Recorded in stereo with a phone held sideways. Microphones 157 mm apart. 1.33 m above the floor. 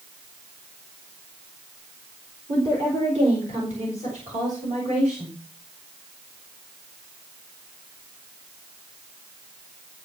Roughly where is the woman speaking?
Right.